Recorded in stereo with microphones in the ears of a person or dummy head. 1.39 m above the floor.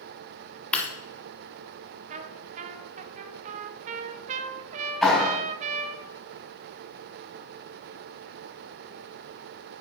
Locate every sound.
0.7 s breaking glass: 5° left (ahead or behind), 1.8 m
2.1 s a trumpet: 45° right (ahead or behind), 0.6 m
5.0 s a clap: 5° left (ahead or behind), 5 m